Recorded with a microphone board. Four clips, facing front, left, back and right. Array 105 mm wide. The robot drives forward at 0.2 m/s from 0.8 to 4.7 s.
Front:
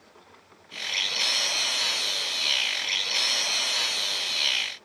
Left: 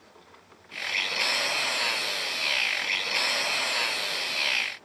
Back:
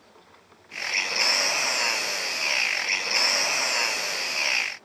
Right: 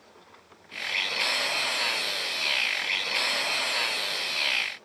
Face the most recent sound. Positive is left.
No sound to turn to.